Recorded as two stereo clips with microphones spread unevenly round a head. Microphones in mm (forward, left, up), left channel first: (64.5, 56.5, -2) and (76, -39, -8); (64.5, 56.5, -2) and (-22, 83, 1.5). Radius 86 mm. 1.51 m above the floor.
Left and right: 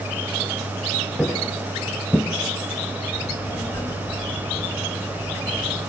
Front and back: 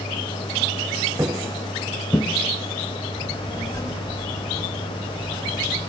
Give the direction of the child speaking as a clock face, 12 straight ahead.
11 o'clock.